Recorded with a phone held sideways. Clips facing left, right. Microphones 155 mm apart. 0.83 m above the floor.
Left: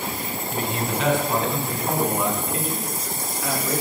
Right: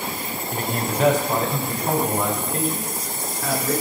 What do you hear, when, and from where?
0.5 s a man speaking: 45° right (ahead or behind), 3.5 m; by 3.7 s 35° right (ahead or behind), 8.5 m